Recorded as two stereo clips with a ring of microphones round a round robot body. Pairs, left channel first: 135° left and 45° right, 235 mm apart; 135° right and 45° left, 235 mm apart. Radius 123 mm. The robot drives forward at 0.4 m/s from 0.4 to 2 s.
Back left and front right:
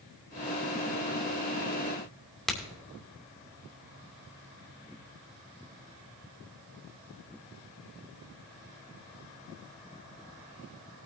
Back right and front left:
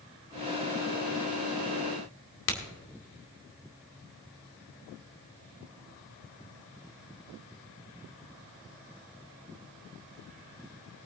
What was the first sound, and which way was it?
A crack, 135° right.